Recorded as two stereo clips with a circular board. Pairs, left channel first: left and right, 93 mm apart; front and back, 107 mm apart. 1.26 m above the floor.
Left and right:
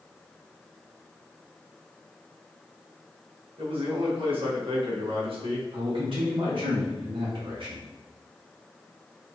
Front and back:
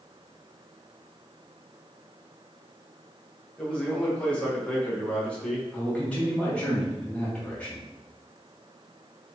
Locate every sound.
3.6 s a man speaking: 80° right, 0.9 m
5.7 s a man speaking: 75° right, 1.2 m